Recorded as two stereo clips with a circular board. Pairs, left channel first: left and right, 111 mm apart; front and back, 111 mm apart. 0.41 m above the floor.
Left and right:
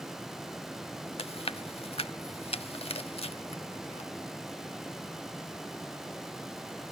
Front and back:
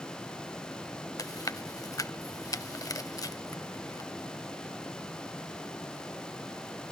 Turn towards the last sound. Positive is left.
turn(degrees=60)